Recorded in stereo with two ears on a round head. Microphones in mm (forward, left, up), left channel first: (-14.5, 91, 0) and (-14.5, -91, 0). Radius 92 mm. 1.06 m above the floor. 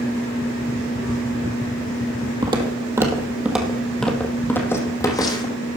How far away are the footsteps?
About 1.9 m.